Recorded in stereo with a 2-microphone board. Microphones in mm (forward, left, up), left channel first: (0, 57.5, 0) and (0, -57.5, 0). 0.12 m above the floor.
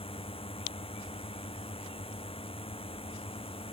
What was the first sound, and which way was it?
A drone, 60° left (ahead or behind).